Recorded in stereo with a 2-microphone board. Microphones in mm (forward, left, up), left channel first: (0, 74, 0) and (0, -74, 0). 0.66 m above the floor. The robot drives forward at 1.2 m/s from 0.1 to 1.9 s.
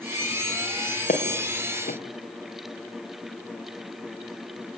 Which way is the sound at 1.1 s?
70° left (ahead or behind).